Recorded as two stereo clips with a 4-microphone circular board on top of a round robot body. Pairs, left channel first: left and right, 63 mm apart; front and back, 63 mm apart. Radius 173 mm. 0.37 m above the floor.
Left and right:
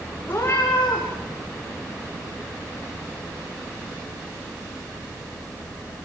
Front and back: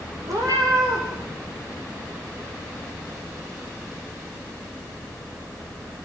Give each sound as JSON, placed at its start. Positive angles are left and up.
{"t": 0.3, "sound": "a cat meowing", "azimuth_deg": 150, "distance_m": 8.0}